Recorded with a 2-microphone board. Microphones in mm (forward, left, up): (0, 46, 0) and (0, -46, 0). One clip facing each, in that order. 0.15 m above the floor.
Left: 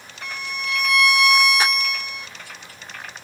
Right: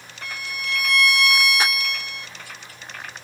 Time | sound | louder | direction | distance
0.2 | a violin | left 2 dB | 10° left (ahead or behind) | 0.8 m